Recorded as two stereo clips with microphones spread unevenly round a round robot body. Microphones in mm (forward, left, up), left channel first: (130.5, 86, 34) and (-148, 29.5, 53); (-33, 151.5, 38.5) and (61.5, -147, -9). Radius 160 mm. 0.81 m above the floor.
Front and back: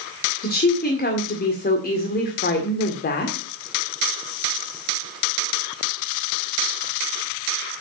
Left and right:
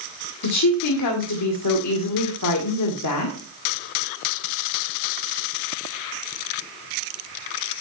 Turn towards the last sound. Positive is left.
turn(degrees=70)